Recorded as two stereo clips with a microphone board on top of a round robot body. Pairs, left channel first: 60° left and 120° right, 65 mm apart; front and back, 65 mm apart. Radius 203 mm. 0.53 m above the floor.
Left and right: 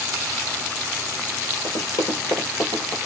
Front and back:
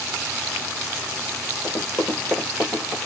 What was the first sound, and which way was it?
Running footsteps, 65° left.